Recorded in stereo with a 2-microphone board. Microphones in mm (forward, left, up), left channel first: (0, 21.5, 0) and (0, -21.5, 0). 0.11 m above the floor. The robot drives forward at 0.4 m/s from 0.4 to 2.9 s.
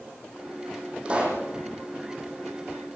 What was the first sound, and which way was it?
A pop, 25° right (ahead or behind).